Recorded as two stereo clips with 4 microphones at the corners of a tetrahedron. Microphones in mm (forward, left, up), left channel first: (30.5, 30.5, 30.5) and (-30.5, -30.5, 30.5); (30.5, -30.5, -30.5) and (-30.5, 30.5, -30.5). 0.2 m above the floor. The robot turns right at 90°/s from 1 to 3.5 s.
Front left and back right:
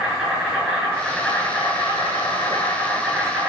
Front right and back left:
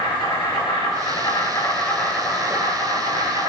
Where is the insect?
60° right, 4.5 m; by 3.5 s 165° left, 4.5 m.